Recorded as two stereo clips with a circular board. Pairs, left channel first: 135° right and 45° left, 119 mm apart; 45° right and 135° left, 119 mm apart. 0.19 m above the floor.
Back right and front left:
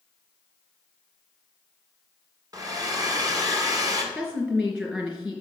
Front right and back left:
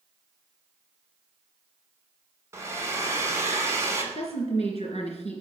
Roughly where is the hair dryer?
Left.